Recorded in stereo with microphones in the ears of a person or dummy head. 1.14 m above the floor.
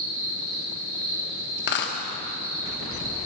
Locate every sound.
0.0 s an insect: 70° right (ahead or behind), 3 m
1.6 s a dropped coin: 50° left (ahead or behind), 0.9 m